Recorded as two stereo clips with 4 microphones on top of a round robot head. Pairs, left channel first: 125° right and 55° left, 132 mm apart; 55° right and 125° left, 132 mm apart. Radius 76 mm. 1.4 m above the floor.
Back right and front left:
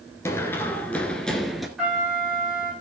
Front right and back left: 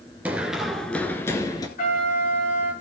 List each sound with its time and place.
0.2 s running footsteps: 170° right, 1.4 m; by 1.7 s 35° right, 1.4 m
1.8 s a trumpet: 30° right, 7.5 m